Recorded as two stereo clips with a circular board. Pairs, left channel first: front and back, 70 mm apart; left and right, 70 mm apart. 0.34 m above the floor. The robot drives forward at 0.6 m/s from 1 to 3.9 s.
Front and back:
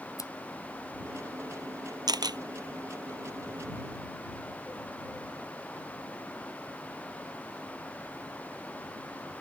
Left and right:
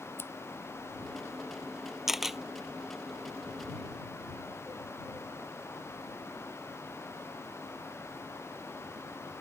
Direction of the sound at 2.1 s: 175° right.